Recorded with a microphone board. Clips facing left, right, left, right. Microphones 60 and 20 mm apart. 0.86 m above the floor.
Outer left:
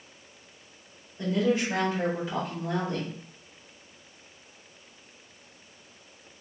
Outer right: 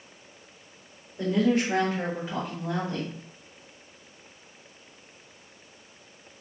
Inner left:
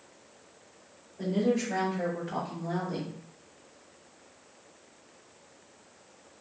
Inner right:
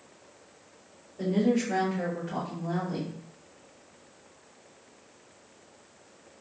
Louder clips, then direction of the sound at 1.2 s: Outer right 2 dB, inner right 2 dB; 65° right (ahead or behind).